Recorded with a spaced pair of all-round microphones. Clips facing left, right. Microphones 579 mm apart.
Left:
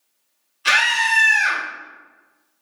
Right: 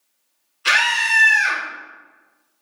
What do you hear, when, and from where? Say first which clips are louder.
0.7 s a scream: left 1 dB; 15° left (ahead or behind), 1.3 m